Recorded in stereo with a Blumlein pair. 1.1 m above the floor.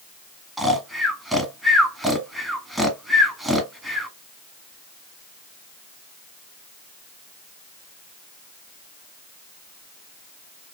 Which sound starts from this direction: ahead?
Snoring, at 0.6 s.